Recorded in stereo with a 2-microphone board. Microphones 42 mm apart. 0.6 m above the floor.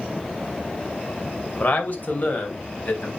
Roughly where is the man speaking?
Left.